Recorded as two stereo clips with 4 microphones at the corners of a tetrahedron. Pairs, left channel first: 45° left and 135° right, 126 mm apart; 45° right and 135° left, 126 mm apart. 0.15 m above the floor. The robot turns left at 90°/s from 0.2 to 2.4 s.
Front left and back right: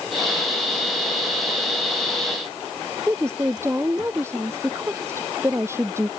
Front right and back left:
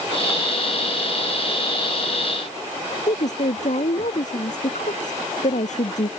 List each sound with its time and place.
3.1 s a woman speaking: 65° right